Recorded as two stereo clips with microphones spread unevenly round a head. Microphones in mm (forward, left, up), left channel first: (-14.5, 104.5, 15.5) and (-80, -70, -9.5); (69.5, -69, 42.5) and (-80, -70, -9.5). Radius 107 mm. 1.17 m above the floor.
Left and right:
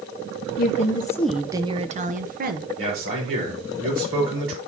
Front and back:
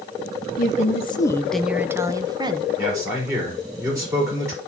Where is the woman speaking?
40° left, 0.7 m; by 2.7 s 135° right, 1.1 m.